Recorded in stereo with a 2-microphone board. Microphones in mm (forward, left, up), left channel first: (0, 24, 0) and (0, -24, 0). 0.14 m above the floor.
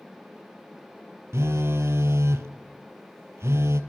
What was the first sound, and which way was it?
A phone buzzing, 70° right (ahead or behind).